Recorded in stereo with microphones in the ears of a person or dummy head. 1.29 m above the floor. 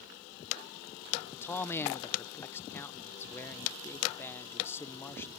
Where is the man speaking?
10° left (ahead or behind).